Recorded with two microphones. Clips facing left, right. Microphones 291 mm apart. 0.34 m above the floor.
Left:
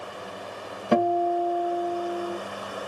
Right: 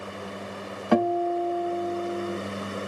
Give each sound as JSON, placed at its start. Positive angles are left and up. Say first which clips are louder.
{"t": 0.9, "sound": "a guitar", "louder": "even", "side_deg": 20, "distance_m": 1.9}